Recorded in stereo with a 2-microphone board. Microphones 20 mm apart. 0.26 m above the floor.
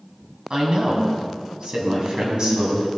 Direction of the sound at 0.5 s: 45° right (ahead or behind).